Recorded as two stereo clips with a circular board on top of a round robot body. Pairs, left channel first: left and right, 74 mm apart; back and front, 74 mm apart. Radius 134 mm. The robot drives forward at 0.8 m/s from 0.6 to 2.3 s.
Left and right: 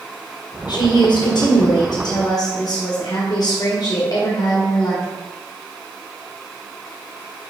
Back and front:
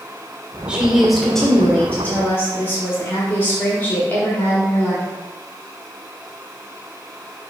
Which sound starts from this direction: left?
A woman speaking, at 0.7 s.